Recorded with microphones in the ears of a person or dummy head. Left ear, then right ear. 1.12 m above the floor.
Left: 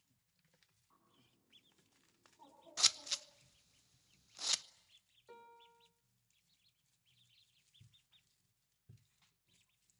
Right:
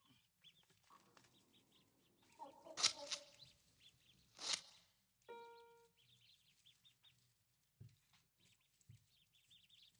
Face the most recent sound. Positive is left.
turn(degrees=-15)  # may be behind; listen again after turning